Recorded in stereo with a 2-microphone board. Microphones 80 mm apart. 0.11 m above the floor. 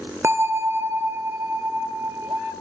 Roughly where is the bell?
Right.